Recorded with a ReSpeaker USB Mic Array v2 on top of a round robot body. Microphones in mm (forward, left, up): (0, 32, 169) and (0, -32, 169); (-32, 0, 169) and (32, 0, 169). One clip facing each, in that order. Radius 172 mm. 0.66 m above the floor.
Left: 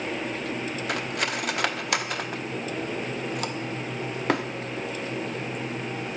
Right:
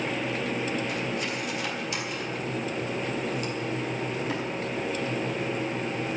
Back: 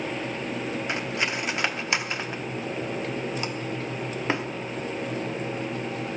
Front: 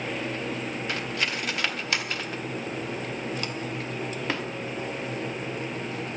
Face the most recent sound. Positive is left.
turn(degrees=115)